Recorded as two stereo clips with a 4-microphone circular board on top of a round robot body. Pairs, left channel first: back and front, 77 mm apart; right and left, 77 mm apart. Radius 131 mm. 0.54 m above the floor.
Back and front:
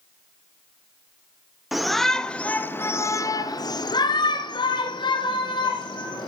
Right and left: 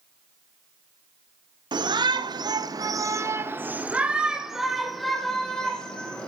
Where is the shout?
85° left, 1.7 m; by 6.3 s 165° right, 3 m.